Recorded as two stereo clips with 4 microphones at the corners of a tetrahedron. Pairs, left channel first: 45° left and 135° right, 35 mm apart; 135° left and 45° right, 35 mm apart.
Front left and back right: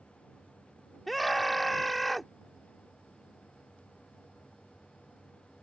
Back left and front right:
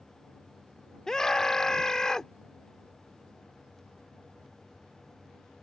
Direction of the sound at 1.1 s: 130° left.